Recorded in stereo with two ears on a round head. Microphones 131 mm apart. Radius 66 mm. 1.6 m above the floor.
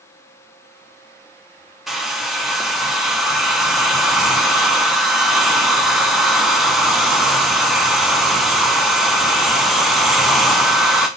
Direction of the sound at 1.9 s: Centre (ahead or behind).